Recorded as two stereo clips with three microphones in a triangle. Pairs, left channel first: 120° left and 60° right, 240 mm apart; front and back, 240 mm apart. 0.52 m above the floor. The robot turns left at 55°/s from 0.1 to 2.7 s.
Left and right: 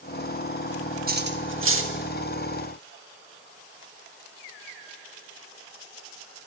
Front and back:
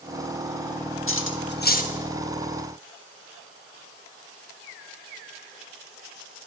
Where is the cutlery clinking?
10° right, 0.7 m; by 1.9 s 60° right, 0.7 m.